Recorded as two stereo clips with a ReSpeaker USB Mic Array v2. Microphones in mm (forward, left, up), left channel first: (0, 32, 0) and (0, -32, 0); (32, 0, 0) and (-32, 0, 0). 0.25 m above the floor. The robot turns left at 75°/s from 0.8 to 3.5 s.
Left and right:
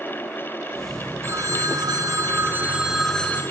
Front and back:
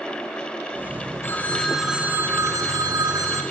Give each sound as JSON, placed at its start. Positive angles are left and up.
{"t": 1.2, "sound": "a phone ringing", "azimuth_deg": -50, "distance_m": 1.5}